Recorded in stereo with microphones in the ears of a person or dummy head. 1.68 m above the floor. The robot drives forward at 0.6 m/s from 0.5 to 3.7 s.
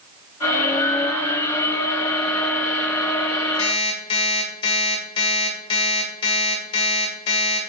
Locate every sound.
3.6 s an alarm clock: 35° left (ahead or behind), 1.7 m; by 7.7 s 30° left (ahead or behind), 1.7 m